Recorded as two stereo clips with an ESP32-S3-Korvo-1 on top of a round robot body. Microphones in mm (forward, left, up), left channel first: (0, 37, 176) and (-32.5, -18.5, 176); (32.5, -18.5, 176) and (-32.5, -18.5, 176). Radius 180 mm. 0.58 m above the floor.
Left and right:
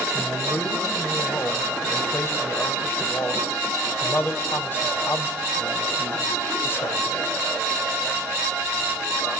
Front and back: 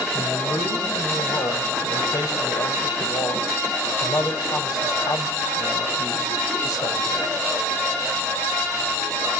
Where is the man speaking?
5° left, 3.5 m.